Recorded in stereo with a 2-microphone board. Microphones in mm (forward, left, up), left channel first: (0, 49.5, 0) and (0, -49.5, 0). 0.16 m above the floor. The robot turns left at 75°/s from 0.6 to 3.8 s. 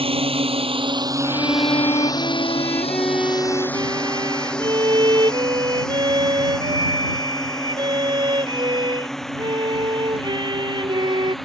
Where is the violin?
135° left; by 11.3 s 55° right.